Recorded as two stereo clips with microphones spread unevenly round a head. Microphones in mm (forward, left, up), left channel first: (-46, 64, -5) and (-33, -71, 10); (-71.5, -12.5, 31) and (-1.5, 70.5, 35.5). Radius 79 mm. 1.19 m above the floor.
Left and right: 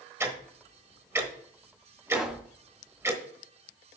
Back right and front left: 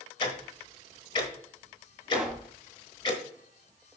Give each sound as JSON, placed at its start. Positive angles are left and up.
{"t": 0.2, "sound": "ticking", "azimuth_deg": -130, "distance_m": 1.1}
{"t": 2.1, "sound": "a pop", "azimuth_deg": -30, "distance_m": 0.5}